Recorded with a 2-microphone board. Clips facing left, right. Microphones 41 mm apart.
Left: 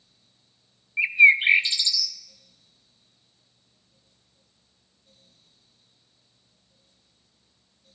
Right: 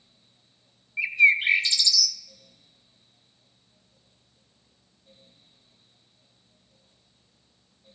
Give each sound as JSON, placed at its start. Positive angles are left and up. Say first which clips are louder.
{"t": 1.0, "sound": "a bird", "louder": "left 3 dB", "side_deg": 20, "distance_m": 0.6}